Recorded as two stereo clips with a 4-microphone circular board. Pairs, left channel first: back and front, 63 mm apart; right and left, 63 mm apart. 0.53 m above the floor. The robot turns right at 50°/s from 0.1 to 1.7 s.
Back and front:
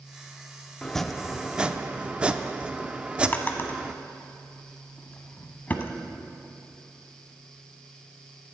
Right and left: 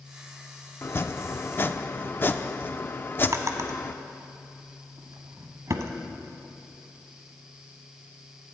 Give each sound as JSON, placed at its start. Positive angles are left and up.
{"t": 0.8, "sound": "chopping", "azimuth_deg": -105, "distance_m": 0.5}
{"t": 3.3, "sound": "a drawer", "azimuth_deg": 120, "distance_m": 1.0}